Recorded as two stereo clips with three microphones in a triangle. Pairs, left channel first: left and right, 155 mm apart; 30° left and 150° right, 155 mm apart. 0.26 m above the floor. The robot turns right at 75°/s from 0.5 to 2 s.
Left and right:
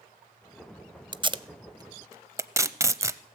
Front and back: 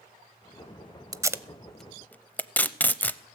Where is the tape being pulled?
105° right, 0.5 m; by 3.2 s 40° right, 0.5 m.